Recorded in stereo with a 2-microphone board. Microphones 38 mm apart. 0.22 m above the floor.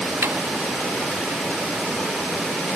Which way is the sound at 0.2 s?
70° right (ahead or behind).